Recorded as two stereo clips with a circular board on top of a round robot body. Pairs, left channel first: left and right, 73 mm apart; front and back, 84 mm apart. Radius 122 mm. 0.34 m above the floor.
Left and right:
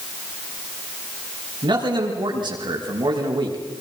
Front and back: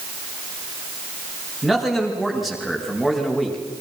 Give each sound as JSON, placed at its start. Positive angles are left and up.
{"t": 1.6, "sound": "a man speaking", "azimuth_deg": -90, "distance_m": 6.0}